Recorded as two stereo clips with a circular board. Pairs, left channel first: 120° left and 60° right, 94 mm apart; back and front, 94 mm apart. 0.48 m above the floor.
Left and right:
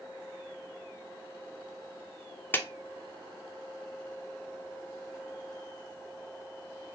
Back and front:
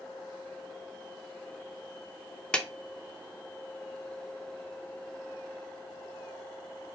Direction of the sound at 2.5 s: 120° left.